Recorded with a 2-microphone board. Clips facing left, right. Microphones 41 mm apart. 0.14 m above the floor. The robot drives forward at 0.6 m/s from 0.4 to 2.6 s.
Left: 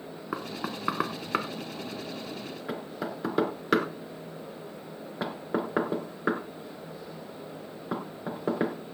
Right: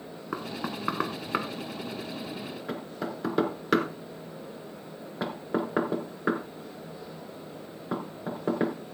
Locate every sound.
0.3 s knocking: 5° left (ahead or behind), 1.0 m